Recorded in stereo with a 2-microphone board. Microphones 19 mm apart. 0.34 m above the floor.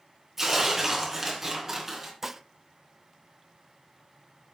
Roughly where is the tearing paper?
Centre.